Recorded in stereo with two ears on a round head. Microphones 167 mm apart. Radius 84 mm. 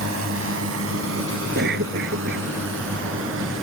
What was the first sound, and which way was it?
A drone, 80° right.